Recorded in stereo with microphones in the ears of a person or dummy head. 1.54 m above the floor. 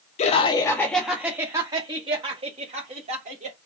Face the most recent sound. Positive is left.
turn(degrees=-40)  # may be behind; listen again after turning